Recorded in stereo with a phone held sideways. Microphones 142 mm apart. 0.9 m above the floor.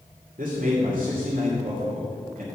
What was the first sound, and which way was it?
A man speaking, 80° right.